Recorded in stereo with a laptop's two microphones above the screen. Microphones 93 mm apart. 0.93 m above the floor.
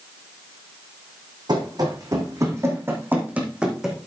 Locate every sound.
1.5 s running footsteps: 50° right (ahead or behind), 3 m; by 4.1 s centre (ahead or behind), 2.5 m